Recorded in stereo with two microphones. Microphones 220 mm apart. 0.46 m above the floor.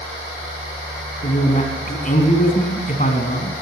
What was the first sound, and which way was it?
A man speaking, 40° left (ahead or behind).